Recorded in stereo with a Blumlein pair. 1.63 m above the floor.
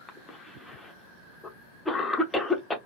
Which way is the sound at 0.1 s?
10° left.